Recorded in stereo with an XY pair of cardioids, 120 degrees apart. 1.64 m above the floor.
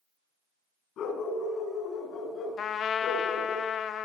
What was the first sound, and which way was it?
A dog barking, 60° left.